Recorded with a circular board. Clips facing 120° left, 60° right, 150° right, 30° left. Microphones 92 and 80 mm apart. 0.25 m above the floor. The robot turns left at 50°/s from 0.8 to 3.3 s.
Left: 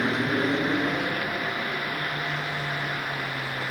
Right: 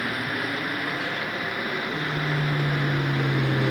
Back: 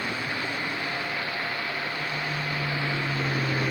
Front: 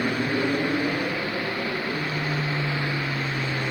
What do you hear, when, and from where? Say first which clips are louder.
0.0 s an aircraft: left 4 dB, front 7 dB; 60° left; by 3.7 s 65° right